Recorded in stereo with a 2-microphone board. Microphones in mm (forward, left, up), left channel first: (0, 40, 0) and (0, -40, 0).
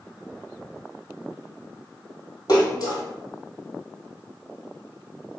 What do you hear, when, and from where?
2.5 s a splash: 55° left (ahead or behind), 1.9 m